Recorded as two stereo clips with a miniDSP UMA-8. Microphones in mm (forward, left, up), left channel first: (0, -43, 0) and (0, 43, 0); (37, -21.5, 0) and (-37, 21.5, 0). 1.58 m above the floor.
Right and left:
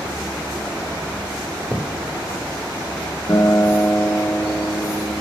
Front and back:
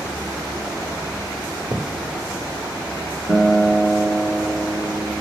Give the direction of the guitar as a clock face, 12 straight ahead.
4 o'clock.